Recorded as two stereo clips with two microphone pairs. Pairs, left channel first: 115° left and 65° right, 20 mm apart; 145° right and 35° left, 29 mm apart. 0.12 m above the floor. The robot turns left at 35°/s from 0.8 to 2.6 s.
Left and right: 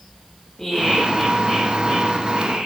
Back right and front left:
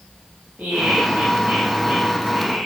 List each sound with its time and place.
0.6 s laughter: 40° left, 8 m; by 2.7 s 20° right, 8 m